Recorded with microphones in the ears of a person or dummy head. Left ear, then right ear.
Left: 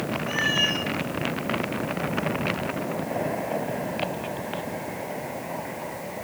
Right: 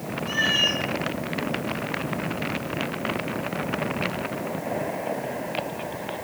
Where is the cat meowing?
60° right (ahead or behind), 1.7 m.